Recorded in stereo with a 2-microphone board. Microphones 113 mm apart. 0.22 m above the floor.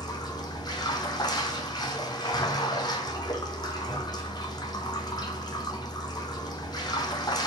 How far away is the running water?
About 1.8 m.